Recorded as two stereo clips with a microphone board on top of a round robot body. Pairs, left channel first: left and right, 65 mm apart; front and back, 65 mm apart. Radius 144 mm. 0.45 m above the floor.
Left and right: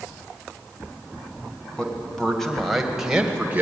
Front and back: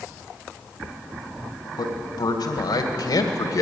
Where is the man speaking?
10° left, 3.5 m; by 3.6 s 25° right, 2 m.